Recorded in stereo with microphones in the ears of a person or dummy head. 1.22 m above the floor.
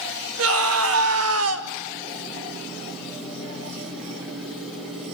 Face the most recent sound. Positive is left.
turn(degrees=-80)